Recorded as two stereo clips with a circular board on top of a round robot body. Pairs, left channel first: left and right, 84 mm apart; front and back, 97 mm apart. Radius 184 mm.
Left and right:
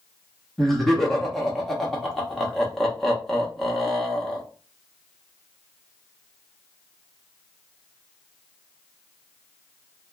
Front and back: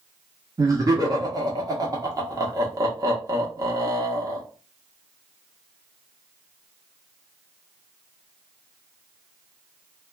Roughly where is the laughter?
Behind.